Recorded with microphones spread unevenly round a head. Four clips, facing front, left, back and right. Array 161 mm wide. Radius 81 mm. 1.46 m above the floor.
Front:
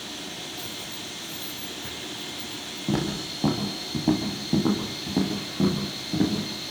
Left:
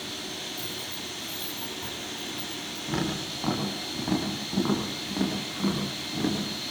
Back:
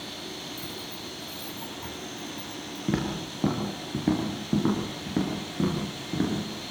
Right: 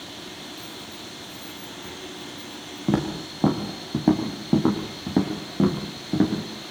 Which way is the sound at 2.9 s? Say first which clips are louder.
Right 6 dB, front 2 dB; 100° right.